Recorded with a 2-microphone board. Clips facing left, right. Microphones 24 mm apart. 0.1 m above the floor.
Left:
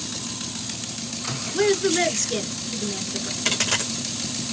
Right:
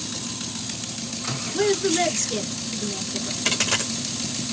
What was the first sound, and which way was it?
A woman speaking, 20° left (ahead or behind).